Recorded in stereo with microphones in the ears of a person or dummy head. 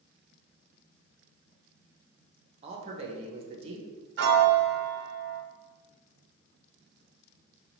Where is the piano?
70° right (ahead or behind), 0.5 m.